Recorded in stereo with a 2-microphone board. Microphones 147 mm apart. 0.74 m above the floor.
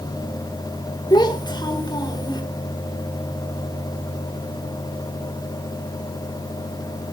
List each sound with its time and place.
1.1 s a child speaking: 30° left (ahead or behind), 2 m